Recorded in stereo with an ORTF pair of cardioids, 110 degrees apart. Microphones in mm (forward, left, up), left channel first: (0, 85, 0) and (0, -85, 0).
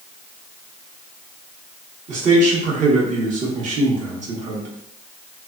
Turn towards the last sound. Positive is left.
turn(degrees=-50)